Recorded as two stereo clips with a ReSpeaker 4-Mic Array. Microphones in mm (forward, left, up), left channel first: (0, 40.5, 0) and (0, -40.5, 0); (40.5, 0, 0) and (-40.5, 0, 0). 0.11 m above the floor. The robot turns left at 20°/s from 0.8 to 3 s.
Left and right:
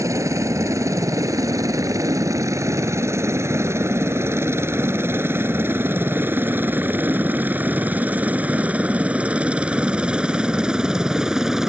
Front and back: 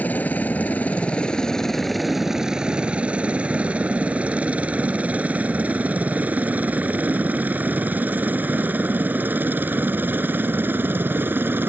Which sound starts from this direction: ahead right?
A helicopter, at 0.0 s.